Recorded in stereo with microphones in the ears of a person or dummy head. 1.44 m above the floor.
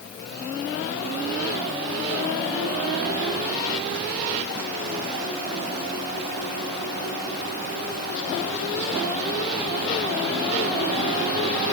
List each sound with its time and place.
Only background noise.